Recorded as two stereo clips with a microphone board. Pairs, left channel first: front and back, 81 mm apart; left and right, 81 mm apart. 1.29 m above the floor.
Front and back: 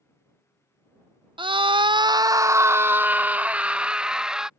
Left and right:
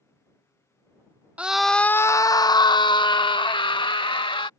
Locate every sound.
1.4 s a scream: 165° right; by 4.5 s 100° left